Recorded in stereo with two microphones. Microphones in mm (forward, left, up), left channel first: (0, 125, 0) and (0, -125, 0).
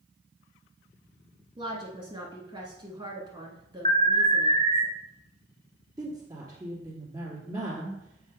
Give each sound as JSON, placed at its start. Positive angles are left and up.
{"t": 1.6, "sound": "a woman speaking", "side_deg": -20, "distance_m": 1.1}
{"t": 3.9, "sound": "an alarm", "side_deg": 25, "distance_m": 0.9}
{"t": 6.0, "sound": "a woman speaking", "side_deg": -15, "distance_m": 2.5}